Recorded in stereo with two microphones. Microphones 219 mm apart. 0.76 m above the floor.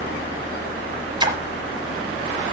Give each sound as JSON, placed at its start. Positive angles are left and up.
{"t": 1.2, "sound": "a splash", "side_deg": -20, "distance_m": 1.3}